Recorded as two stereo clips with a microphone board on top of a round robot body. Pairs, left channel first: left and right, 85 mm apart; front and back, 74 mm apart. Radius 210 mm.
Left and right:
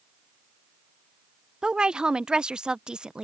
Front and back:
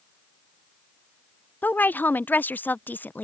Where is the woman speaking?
20° right.